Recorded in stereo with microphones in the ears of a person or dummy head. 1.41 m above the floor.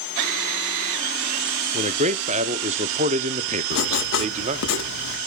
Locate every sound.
1.7 s a man speaking: 35° right (ahead or behind), 0.6 m
3.7 s writing: 65° left (ahead or behind), 1.2 m